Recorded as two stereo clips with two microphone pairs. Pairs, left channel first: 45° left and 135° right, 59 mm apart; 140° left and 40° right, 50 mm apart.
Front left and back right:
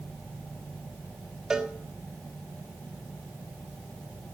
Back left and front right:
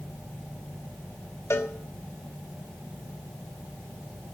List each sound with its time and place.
1.5 s a cowbell: 145° left, 1.1 m